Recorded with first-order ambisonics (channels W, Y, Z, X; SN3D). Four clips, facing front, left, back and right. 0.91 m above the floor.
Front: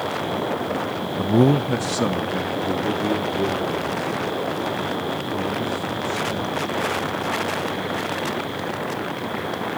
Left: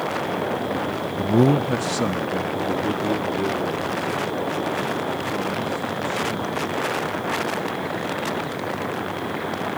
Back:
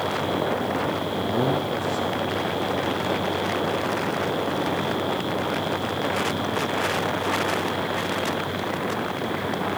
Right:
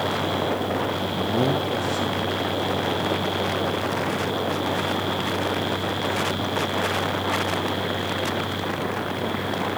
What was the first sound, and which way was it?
A man speaking, 40° left.